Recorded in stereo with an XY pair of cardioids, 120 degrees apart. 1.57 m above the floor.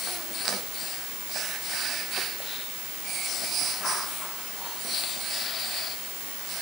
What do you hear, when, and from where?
Only background noise.